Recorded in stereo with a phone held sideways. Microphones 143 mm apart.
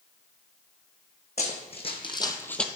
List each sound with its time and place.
1.4 s running footsteps: 50° left (ahead or behind), 1.9 m; by 2.7 s 5° left (ahead or behind), 0.9 m